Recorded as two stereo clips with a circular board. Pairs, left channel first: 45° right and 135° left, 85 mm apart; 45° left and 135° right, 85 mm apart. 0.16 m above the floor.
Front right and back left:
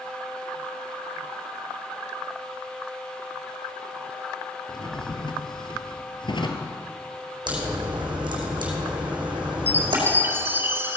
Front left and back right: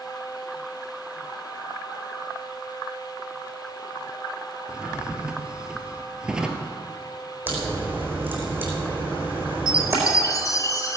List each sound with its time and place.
4.7 s a drawer: 55° right, 1.4 m
7.5 s a crack: 160° left, 4 m
9.7 s a chime: 80° left, 1.0 m